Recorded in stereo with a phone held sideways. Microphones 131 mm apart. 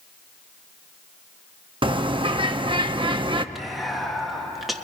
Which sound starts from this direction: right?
A bird, at 1.8 s.